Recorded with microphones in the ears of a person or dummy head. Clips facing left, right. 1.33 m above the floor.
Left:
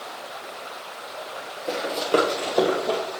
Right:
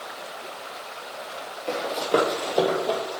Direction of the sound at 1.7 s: 5° left (ahead or behind).